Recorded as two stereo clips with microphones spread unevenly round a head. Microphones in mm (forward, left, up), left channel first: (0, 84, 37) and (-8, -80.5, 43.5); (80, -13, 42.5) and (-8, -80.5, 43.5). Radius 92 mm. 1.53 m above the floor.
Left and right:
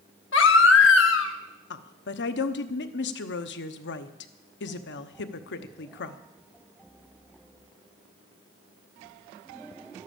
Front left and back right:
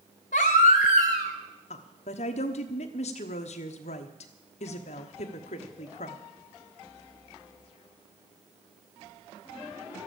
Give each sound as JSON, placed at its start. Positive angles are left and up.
{"t": 0.3, "sound": "a baby crying", "azimuth_deg": 75, "distance_m": 1.2}
{"t": 1.7, "sound": "a woman speaking", "azimuth_deg": 75, "distance_m": 1.0}